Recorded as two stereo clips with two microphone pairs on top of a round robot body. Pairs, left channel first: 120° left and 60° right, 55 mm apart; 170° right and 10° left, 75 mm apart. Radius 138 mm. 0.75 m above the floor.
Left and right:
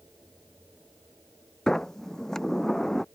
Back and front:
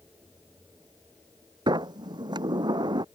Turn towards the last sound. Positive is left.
turn(degrees=35)